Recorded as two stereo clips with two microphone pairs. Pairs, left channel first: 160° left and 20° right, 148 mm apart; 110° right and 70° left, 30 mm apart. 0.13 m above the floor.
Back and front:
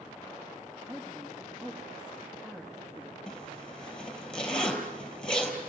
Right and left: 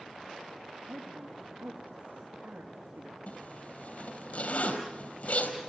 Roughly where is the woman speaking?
Ahead left.